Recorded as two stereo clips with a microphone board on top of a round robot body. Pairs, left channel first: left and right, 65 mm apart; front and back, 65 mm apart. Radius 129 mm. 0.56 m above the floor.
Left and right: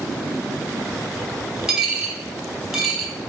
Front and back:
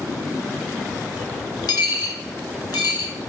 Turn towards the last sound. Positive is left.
turn(degrees=-5)